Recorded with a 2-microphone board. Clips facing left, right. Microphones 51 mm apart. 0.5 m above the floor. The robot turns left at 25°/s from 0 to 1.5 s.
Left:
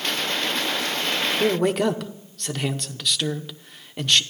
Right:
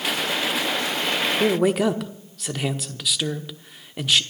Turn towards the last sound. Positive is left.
turn(degrees=-5)  # may be behind; listen again after turning